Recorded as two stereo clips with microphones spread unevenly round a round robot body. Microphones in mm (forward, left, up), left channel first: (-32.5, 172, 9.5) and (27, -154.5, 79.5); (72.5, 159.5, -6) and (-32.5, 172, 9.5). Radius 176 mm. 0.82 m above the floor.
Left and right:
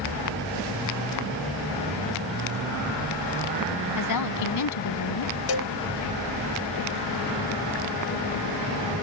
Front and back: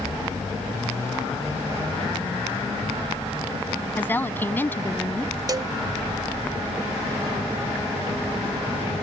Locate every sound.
4.0 s a woman speaking: 65° left
5.5 s a cowbell: 120° left